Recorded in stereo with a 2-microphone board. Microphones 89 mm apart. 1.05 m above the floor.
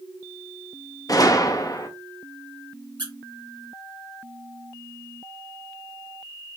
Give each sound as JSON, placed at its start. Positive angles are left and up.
{"t": 1.1, "sound": "a gunshot", "side_deg": 40, "distance_m": 0.6}
{"t": 3.0, "sound": "a squeak", "side_deg": -60, "distance_m": 1.3}